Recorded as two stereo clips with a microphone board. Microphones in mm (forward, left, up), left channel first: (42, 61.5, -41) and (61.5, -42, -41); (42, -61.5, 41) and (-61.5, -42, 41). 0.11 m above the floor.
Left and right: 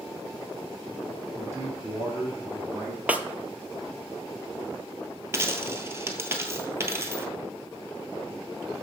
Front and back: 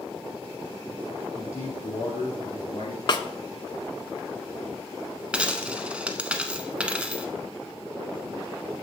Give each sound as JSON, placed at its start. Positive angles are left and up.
{"t": 1.3, "sound": "a man speaking", "azimuth_deg": -20, "distance_m": 3.0}
{"t": 3.1, "sound": "a snare drum", "azimuth_deg": -10, "distance_m": 0.5}
{"t": 5.3, "sound": "a dropped coin", "azimuth_deg": -115, "distance_m": 0.8}